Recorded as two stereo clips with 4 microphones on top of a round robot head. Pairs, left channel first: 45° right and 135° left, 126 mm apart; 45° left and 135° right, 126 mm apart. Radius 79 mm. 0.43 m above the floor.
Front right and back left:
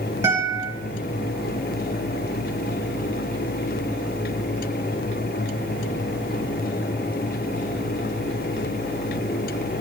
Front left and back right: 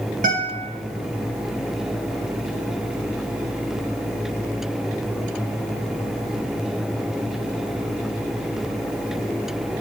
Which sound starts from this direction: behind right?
A guitar, at 0.2 s.